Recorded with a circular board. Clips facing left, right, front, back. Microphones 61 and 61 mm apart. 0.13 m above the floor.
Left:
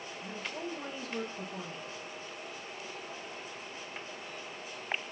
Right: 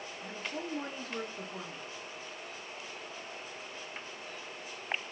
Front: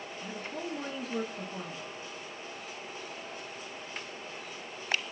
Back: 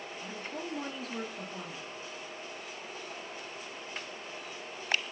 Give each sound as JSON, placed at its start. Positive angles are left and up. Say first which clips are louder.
{"t": 0.2, "sound": "a woman speaking", "louder": "even, front 2 dB", "azimuth_deg": -70, "distance_m": 1.2}